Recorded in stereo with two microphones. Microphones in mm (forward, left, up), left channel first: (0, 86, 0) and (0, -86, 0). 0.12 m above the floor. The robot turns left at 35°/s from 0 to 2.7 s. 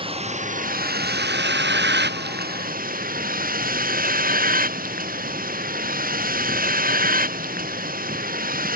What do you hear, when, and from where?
0.0 s a vehicle: 30° right; by 8.8 s 125° right